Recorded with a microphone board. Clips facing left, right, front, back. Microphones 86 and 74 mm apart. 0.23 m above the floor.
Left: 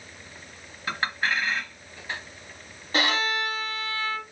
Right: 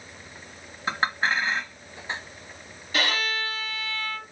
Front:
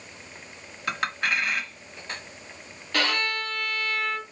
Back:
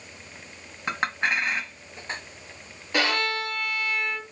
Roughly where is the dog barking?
No dog barking in this recording.